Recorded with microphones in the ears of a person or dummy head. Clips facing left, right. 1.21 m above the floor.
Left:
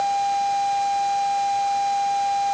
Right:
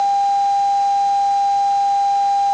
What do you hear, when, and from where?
Only background noise.